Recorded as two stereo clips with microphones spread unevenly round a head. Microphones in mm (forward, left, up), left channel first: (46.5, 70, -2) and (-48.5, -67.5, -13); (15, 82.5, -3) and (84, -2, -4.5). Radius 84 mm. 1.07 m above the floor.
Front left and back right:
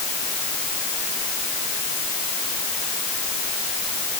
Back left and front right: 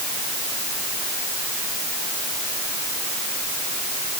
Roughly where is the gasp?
No gasp in this recording.